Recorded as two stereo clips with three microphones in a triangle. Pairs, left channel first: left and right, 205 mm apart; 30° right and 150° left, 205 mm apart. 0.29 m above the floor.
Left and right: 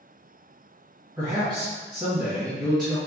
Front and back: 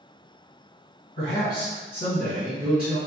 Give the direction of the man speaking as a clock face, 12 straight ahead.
1 o'clock.